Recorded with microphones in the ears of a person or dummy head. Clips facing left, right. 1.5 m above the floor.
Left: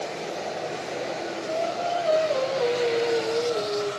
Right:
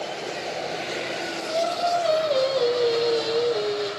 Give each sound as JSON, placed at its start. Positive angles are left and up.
{"t": 1.5, "sound": "singing", "side_deg": -50, "distance_m": 1.4}